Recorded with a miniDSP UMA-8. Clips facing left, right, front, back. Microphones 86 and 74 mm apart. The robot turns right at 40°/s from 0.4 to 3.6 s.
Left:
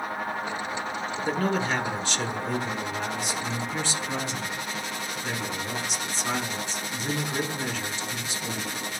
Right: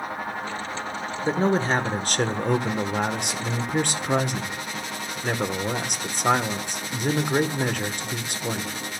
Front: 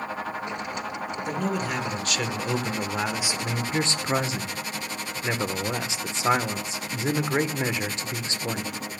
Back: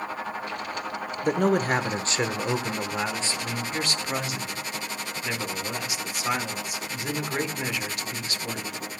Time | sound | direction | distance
1.2 | a man speaking | 160° right | 1.3 m